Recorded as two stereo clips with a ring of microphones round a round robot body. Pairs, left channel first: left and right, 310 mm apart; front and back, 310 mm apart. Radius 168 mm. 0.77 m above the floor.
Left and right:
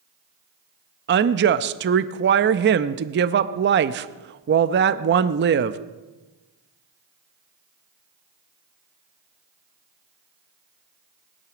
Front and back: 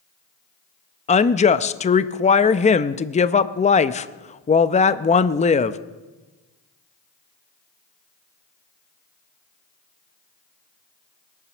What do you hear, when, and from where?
1.1 s a woman speaking: 55° right, 0.6 m